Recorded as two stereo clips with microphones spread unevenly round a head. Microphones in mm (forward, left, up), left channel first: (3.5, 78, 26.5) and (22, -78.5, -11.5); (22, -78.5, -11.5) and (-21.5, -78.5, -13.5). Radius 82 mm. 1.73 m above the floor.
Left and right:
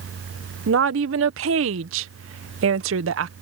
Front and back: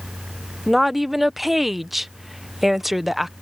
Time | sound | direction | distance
0.7 | a woman speaking | 95° right | ?